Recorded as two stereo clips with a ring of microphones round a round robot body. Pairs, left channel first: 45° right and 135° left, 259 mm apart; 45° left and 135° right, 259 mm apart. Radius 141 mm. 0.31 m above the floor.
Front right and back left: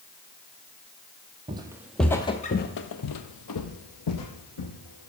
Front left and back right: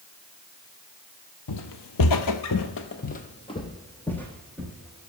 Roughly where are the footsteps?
Ahead left.